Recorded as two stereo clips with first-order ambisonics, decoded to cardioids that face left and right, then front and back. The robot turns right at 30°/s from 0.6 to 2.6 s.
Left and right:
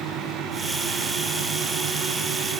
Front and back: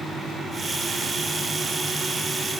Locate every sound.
Only background noise.